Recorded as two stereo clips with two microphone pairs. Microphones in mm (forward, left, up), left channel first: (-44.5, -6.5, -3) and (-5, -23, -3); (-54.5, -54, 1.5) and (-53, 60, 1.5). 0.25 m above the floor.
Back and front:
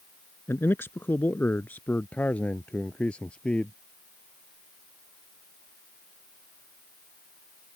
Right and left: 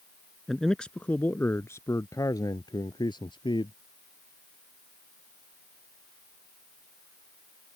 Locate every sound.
0.5 s a man speaking: straight behind; by 3.7 s 135° right